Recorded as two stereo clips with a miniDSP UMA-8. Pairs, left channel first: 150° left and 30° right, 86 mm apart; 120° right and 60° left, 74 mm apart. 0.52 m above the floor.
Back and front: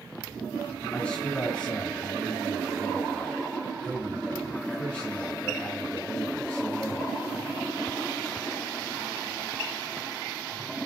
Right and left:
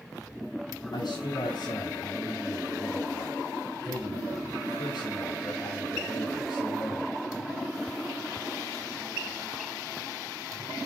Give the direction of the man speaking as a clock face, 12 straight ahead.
4 o'clock.